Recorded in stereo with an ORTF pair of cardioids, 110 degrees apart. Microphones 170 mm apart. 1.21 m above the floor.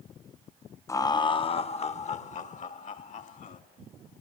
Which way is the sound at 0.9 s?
15° left.